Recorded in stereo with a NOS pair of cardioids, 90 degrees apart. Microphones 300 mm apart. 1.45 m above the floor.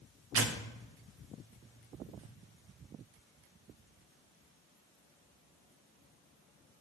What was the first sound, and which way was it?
Tearing paper, 50° right.